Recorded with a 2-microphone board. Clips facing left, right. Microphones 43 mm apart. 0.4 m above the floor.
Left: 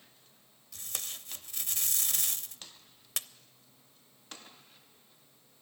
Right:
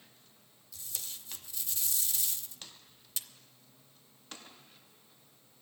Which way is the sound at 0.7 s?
60° left (ahead or behind).